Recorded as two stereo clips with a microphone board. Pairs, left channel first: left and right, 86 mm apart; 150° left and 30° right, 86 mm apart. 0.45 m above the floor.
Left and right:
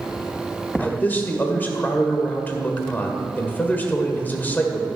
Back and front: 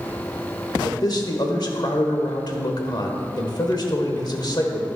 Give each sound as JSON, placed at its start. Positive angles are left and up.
{"t": 0.8, "sound": "a man speaking", "azimuth_deg": 150, "distance_m": 1.4}